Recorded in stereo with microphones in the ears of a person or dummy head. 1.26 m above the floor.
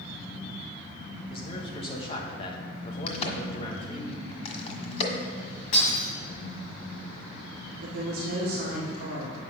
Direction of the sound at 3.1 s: 40° left (ahead or behind).